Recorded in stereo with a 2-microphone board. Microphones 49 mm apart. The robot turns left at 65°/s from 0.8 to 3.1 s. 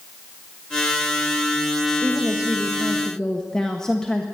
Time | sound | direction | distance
2.0 | a woman speaking | 125° right | 1.2 m